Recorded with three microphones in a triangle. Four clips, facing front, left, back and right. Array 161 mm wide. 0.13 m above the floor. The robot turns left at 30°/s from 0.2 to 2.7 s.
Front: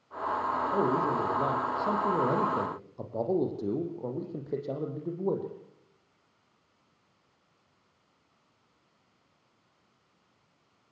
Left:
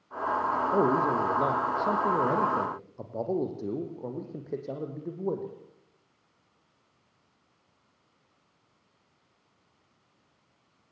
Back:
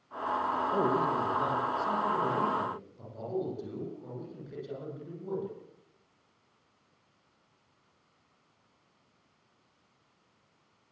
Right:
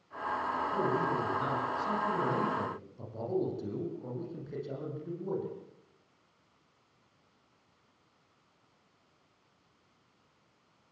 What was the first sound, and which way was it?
A man speaking, 95° left.